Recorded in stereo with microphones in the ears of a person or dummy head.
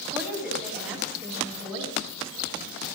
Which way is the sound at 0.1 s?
10° right (ahead or behind).